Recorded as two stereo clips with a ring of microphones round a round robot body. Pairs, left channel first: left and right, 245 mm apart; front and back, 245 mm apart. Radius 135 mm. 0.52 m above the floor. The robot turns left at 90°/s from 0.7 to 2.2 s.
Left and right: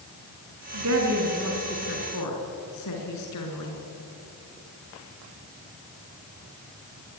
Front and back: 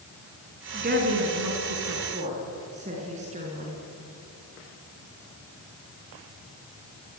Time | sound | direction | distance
0.7 | a woman speaking | 115° right | 6 m